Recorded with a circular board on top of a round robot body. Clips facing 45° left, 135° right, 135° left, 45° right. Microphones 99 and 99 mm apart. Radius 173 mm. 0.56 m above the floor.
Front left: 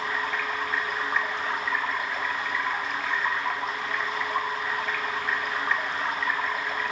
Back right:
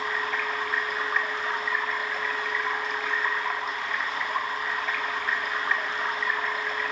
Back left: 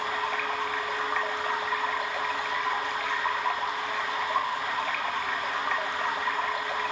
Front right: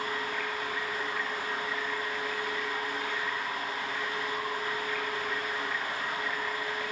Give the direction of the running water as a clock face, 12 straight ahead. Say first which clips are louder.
Even, back left 4 dB; 7 o'clock.